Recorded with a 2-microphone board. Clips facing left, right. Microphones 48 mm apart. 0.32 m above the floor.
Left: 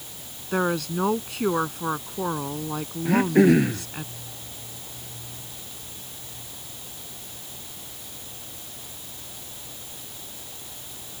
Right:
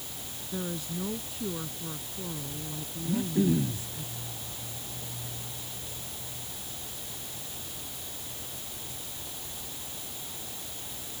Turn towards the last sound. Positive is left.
turn(degrees=65)  # may be behind; listen again after turning